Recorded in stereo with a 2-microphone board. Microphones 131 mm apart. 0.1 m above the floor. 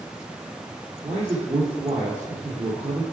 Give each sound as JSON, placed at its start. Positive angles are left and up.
{"t": 1.0, "sound": "a man speaking", "side_deg": -60, "distance_m": 2.0}